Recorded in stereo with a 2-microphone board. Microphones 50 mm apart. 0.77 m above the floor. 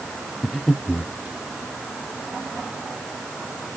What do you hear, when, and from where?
0.4 s breathing: 5° left (ahead or behind), 0.7 m